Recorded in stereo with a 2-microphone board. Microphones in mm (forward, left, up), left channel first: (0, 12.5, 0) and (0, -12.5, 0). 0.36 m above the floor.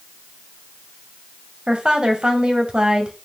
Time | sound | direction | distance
1.7 | a woman speaking | 40° right (ahead or behind) | 1.5 m